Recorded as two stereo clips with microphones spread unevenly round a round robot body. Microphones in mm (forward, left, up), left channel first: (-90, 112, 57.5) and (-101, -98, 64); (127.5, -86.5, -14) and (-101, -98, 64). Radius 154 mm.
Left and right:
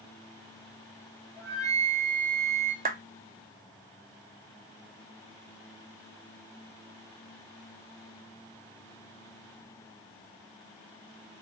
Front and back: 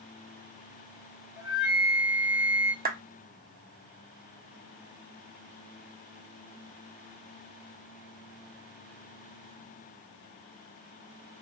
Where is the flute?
5° right, 1.5 m.